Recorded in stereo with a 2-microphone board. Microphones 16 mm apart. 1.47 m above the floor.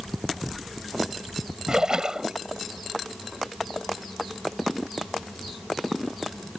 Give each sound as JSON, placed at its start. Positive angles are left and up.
{"t": 1.7, "sound": "a splash", "side_deg": -35}